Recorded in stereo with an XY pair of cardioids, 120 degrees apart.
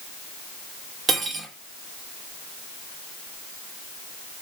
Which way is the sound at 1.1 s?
35° right.